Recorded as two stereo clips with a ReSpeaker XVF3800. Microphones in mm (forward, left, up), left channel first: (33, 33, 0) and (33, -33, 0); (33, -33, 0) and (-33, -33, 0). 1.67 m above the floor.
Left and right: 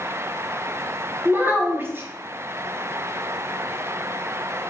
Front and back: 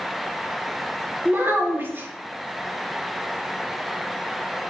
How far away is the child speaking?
About 0.7 m.